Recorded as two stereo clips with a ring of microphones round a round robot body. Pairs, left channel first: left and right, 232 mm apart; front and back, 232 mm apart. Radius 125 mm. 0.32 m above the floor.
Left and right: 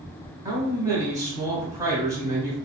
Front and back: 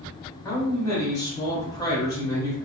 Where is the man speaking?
40° right, 1.0 m.